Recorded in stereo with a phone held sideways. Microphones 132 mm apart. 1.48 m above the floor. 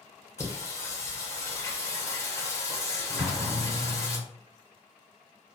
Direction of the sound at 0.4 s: 20° left (ahead or behind).